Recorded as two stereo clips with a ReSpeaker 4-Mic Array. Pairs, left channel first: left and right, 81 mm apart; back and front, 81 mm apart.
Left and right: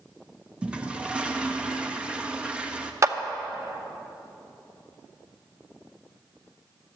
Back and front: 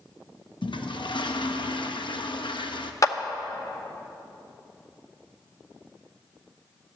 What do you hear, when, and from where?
0.6 s a toilet flushing: 170° right, 0.8 m
3.0 s a clap: 140° right, 0.8 m